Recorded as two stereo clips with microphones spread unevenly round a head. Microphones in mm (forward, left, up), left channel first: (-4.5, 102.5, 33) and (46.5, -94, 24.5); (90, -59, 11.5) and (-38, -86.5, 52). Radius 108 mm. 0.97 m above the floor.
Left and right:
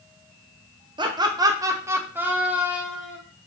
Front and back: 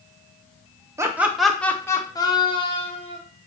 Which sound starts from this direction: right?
Laughter, at 1.0 s.